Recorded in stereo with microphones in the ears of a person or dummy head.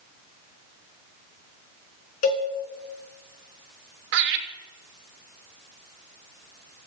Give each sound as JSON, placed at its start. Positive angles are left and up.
{"t": 2.2, "sound": "a cowbell", "side_deg": 50, "distance_m": 2.5}
{"t": 4.1, "sound": "laughter", "side_deg": -65, "distance_m": 2.5}